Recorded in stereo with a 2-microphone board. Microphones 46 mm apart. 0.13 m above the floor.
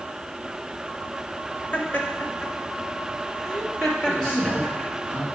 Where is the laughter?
30° left (ahead or behind), 2 m; by 4.9 s 5° left (ahead or behind), 3.5 m.